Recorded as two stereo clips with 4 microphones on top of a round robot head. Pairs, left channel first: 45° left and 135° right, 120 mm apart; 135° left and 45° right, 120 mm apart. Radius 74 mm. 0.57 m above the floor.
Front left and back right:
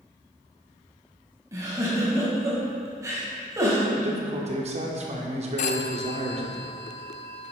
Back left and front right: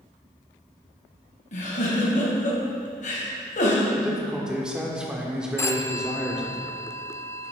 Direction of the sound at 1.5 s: 160° left.